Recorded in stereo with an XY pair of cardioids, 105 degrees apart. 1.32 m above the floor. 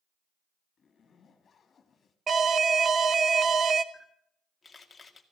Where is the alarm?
45° right, 1.0 m.